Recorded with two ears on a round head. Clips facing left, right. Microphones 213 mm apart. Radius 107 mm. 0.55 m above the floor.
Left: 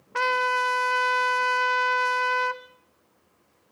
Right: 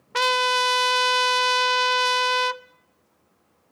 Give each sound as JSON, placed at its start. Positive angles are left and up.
{"t": 0.1, "sound": "a trumpet", "side_deg": -50, "distance_m": 0.7}